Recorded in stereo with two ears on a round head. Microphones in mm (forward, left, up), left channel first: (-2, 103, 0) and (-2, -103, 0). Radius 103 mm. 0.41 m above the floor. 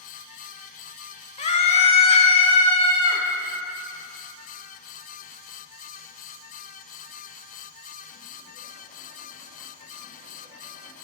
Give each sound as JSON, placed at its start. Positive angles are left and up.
{"t": 1.4, "sound": "a scream", "side_deg": 25, "distance_m": 1.0}